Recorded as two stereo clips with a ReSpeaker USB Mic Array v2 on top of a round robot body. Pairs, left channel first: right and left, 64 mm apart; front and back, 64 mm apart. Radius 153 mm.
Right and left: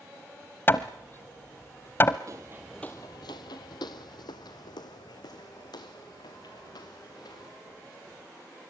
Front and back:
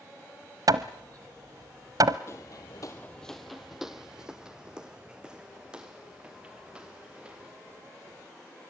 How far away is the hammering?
About 0.9 m.